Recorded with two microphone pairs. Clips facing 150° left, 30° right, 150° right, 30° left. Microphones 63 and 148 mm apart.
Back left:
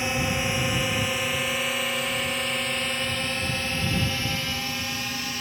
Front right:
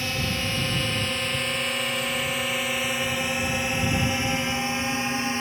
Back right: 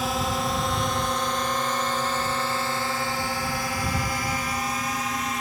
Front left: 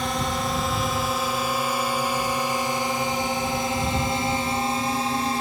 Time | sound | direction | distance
0.0 | a drone | 130° left | ?